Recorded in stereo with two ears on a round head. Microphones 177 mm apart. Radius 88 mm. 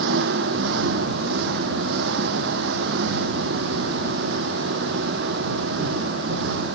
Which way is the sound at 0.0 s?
60° right (ahead or behind).